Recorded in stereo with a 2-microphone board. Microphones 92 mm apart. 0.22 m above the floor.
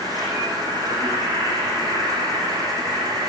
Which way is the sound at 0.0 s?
40° right (ahead or behind).